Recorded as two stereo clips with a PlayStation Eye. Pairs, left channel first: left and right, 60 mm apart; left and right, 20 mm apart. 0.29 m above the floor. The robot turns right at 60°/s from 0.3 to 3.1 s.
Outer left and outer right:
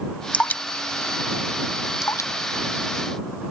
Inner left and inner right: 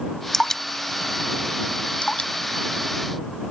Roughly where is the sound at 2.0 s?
Left.